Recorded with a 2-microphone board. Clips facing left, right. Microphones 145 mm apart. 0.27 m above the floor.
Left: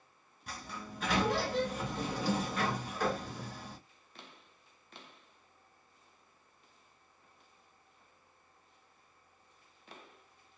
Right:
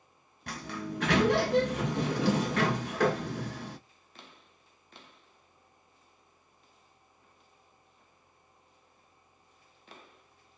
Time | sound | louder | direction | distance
0.5 | a sliding door | right 8 dB | 75° right (ahead or behind) | 0.5 m